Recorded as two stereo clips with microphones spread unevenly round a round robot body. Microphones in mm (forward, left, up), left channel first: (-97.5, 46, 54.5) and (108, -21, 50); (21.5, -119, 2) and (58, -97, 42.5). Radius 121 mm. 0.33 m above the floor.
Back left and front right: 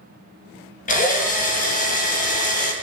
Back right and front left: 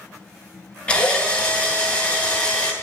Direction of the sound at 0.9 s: 145° right.